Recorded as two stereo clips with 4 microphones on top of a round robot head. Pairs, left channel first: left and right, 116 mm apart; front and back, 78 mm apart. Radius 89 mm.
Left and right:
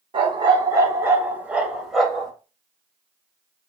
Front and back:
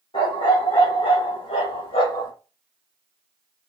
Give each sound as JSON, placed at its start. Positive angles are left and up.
{"t": 0.1, "sound": "a dog barking", "azimuth_deg": -45, "distance_m": 1.1}